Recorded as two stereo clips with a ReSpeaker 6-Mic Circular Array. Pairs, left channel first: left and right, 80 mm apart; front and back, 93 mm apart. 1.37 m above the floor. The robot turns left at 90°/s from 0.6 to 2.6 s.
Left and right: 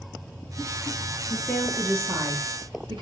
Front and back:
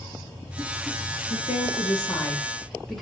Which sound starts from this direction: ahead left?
A woman speaking, at 1.3 s.